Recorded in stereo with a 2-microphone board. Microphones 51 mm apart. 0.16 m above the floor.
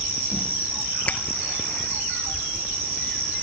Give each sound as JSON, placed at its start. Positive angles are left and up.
{"t": 1.1, "sound": "a finger snap", "side_deg": 25}